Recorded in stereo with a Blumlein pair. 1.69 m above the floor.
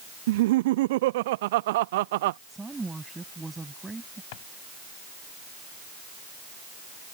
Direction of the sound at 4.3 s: 50° left.